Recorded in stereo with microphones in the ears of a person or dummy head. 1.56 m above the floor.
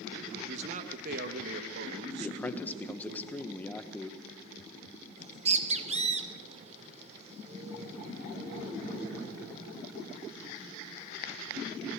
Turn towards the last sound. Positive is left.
turn(degrees=-30)  # may be behind; listen again after turning